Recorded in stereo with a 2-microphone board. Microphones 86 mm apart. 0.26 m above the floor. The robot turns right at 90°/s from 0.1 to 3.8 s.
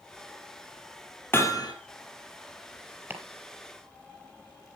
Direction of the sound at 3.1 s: 25° right (ahead or behind).